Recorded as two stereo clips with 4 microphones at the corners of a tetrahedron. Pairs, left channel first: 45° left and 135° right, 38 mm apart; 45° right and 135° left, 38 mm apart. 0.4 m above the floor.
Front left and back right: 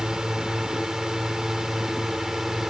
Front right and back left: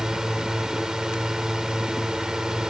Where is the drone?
Straight behind; by 2.7 s 165° left.